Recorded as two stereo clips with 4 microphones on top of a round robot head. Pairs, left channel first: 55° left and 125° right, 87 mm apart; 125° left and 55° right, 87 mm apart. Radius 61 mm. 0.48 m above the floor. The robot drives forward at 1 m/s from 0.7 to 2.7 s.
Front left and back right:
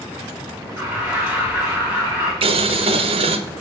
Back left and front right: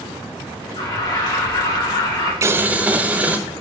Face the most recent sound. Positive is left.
turn(degrees=-130)